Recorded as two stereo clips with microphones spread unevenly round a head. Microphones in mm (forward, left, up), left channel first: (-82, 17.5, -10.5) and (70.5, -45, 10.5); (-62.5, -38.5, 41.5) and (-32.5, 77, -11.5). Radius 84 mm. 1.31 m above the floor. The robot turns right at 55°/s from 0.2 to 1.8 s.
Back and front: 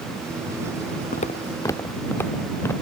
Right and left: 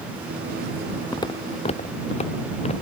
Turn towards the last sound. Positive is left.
turn(degrees=-125)